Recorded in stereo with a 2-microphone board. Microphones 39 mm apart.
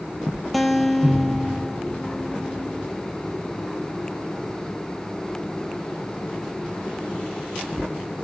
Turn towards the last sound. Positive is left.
turn(degrees=0)  # may be behind; listen again after turning